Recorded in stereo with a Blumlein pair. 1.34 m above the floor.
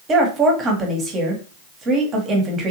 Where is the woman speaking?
25° right, 1.5 m.